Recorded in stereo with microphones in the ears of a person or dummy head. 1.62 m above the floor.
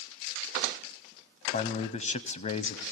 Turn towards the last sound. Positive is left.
turn(degrees=40)  # may be behind; listen again after turning